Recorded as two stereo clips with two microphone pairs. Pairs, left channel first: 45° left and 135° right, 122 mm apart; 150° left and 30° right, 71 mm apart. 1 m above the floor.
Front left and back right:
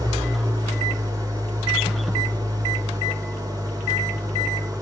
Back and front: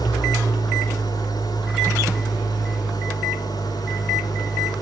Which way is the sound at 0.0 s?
170° left.